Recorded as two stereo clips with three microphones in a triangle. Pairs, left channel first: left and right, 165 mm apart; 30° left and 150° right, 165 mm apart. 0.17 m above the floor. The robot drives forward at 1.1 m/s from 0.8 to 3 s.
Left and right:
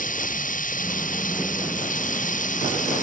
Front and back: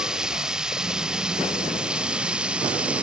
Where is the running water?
125° left.